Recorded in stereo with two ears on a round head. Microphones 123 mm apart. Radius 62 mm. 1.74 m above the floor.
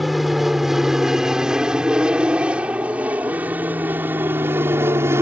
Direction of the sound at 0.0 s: Centre (ahead or behind).